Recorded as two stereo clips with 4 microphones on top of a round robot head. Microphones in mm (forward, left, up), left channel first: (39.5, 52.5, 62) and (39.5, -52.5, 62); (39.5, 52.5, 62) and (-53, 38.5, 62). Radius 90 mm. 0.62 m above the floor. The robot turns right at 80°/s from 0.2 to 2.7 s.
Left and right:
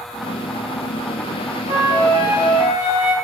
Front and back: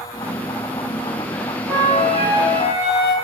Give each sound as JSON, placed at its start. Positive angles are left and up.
{"t": 1.7, "sound": "a flute", "azimuth_deg": -85, "distance_m": 2.0}